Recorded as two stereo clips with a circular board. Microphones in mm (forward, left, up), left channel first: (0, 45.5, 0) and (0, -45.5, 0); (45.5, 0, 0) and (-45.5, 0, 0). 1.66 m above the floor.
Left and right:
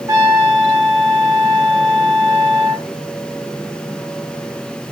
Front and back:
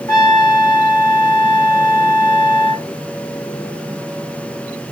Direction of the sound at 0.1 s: 45° right.